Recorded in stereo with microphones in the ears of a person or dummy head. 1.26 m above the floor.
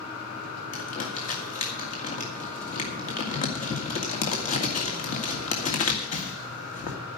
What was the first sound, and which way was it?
Crumpling, 40° left (ahead or behind).